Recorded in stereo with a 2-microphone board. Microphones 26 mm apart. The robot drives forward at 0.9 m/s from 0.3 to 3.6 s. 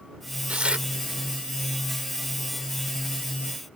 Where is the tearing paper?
55° right (ahead or behind); by 0.9 s 45° right (ahead or behind).